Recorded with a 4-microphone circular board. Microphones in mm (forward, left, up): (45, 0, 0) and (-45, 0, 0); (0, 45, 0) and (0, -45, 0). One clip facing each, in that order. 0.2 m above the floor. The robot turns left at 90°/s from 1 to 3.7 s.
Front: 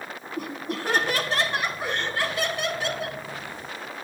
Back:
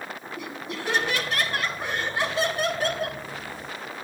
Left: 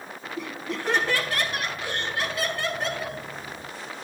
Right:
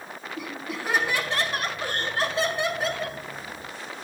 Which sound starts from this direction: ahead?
Laughter, at 0.4 s.